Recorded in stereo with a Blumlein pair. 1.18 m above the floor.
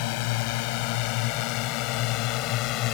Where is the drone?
45° left; by 2.9 s 40° left.